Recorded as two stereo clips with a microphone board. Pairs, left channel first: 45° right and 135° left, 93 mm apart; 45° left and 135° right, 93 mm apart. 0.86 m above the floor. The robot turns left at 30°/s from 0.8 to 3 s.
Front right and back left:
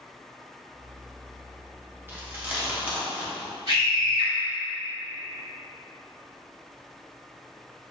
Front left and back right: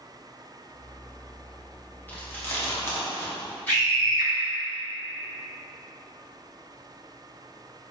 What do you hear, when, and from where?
2.1 s chewing: 95° left, 0.8 m; by 3.6 s 70° left, 0.8 m
3.7 s a scream: 115° left, 1.8 m